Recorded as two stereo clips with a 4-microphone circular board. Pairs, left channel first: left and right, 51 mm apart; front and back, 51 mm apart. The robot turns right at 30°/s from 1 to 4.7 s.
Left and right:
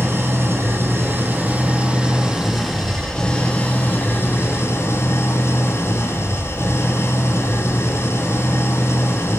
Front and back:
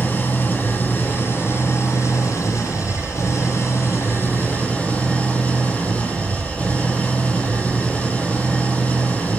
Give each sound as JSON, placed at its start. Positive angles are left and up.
{"t": 0.0, "sound": "an engine running", "azimuth_deg": -50, "distance_m": 4.5}